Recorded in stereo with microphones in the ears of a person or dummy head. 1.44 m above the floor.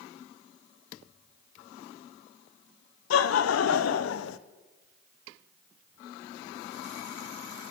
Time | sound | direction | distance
3.1 | laughter | 80° left | 0.6 m